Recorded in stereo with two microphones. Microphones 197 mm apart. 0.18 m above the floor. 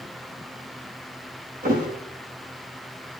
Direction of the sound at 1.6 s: 50° right (ahead or behind).